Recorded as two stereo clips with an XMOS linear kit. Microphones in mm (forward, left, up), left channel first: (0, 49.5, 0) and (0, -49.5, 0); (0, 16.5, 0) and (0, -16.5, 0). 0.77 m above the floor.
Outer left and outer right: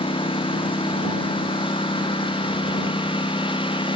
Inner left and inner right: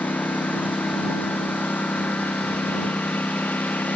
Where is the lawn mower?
65° left (ahead or behind); by 4.0 s 60° left (ahead or behind).